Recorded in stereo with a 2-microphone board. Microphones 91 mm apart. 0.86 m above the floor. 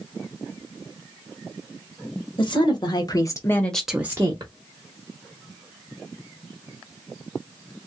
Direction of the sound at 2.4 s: 55° left (ahead or behind).